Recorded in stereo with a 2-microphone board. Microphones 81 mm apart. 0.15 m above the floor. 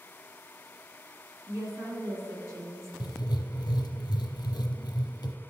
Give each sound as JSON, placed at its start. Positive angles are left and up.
{"t": 1.5, "sound": "a woman speaking", "side_deg": -40, "distance_m": 1.9}
{"t": 3.0, "sound": "writing", "side_deg": 65, "distance_m": 0.7}